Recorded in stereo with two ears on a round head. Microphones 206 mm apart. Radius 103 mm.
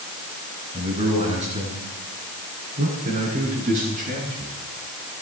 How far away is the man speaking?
About 7.5 m.